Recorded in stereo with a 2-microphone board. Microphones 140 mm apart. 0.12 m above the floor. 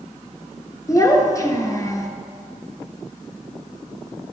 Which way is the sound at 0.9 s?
25° left (ahead or behind).